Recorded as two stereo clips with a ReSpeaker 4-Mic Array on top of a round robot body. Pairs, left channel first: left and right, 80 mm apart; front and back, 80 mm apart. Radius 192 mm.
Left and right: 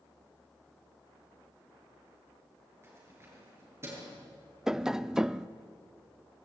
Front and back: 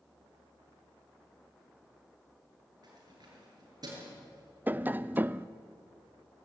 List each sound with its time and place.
2.8 s keys jangling: 145° right, 7 m
4.7 s tapping: 165° right, 0.8 m